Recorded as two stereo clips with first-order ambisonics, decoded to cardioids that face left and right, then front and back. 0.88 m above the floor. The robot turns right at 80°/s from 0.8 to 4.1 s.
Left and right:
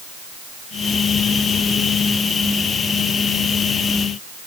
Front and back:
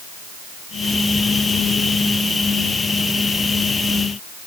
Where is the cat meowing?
I don't hear a cat meowing.